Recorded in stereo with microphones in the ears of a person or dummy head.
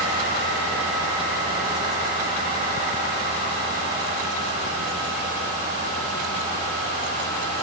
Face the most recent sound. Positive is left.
No sound to turn to.